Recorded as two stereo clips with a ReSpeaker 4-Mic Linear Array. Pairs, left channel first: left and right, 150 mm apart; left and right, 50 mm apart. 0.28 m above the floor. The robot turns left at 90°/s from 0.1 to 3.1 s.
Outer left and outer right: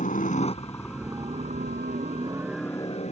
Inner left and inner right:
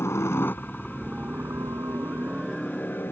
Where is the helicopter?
60° left (ahead or behind); by 3.1 s 50° left (ahead or behind).